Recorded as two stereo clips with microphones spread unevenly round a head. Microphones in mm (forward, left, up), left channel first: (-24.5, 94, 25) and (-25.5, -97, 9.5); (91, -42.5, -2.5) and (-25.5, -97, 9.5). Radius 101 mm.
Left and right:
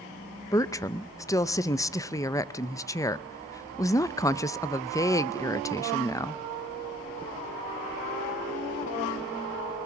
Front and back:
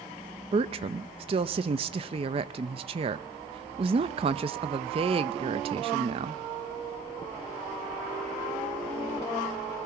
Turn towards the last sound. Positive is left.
turn(degrees=165)